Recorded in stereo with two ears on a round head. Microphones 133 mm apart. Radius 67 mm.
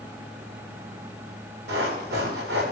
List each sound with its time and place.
1.7 s running footsteps: 85° right, 8.5 m